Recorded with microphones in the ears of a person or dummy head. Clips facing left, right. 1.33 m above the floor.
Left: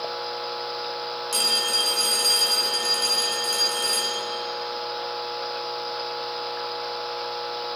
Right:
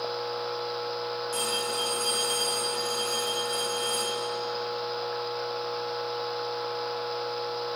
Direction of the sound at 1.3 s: 45° left (ahead or behind).